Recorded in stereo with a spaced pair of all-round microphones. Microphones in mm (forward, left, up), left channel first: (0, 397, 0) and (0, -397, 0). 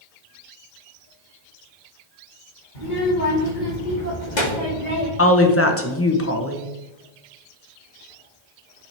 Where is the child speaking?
85° left, 2.5 m; by 5.1 s 55° left (ahead or behind), 2.5 m.